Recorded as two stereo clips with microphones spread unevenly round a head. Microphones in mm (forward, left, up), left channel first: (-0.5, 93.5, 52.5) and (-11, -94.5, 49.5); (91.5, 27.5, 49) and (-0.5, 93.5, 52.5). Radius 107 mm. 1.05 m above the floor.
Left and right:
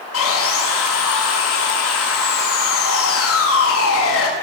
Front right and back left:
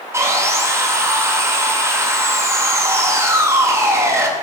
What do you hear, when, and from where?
0.1 s sawing: 75° left, 7 m